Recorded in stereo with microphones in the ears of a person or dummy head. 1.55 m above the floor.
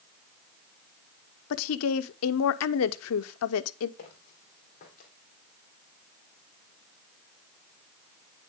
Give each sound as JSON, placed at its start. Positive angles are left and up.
{"t": 1.5, "sound": "a woman speaking", "side_deg": 80, "distance_m": 0.6}
{"t": 4.0, "sound": "footsteps", "side_deg": 45, "distance_m": 4.0}